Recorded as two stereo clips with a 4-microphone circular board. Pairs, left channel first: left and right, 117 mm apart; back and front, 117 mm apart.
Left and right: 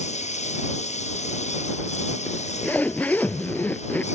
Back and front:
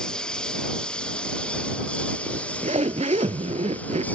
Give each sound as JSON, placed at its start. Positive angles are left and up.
{"t": 0.0, "sound": "a lawn mower", "azimuth_deg": 95}
{"t": 2.3, "sound": "a zipper", "azimuth_deg": 15}